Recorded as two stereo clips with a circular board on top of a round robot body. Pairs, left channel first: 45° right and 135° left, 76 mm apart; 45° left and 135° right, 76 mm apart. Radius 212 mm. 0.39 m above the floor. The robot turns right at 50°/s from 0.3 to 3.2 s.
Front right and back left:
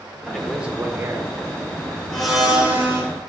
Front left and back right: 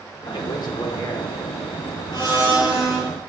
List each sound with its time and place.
0.1 s a man speaking: 40° left, 1.6 m; by 1.3 s 95° left, 1.6 m
2.1 s a blender: 35° left, 2.5 m; by 3.0 s 85° left, 2.5 m